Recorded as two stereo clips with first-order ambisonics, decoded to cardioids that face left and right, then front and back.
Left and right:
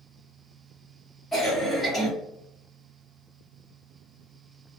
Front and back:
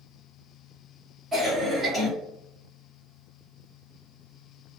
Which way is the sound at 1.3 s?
140° left.